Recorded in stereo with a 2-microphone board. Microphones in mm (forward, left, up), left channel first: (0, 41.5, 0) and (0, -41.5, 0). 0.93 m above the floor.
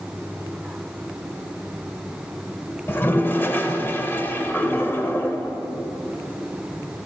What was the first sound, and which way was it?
A toilet flushing, 25° left (ahead or behind).